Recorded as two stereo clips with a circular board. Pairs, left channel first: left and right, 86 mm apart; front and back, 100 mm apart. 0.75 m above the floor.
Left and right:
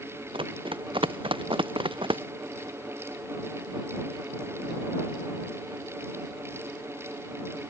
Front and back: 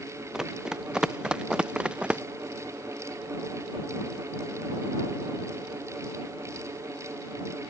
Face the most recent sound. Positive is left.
turn(degrees=-100)